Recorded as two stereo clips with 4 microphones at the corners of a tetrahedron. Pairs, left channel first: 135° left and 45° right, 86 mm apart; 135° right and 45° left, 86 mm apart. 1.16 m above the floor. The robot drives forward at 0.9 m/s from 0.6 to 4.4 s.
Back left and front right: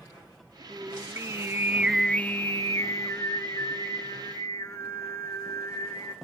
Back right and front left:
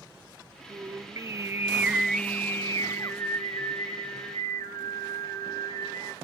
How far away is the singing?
About 1.3 m.